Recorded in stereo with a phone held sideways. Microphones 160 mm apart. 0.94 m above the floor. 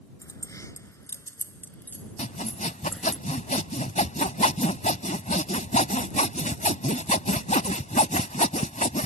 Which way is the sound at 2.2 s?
50° left (ahead or behind).